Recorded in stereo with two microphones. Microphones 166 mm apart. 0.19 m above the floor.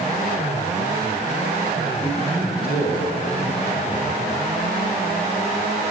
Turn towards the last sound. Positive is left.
turn(degrees=-15)  # may be behind; listen again after turning